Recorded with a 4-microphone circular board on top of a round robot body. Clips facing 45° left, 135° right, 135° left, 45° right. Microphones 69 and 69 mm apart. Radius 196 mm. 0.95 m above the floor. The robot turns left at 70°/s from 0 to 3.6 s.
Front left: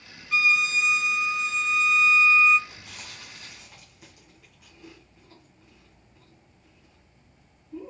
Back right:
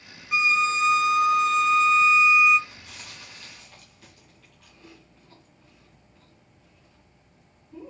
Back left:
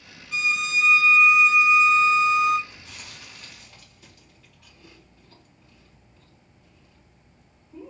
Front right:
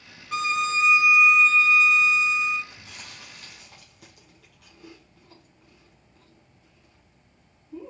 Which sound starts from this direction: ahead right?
A violin, at 0.3 s.